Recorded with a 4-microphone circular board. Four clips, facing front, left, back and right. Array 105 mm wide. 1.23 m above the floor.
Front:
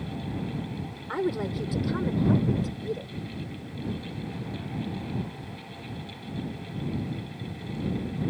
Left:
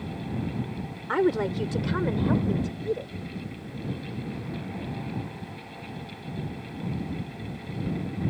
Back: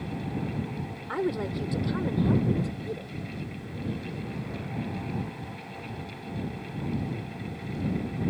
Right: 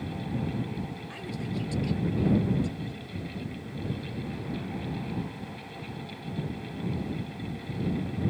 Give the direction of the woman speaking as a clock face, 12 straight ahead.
9 o'clock.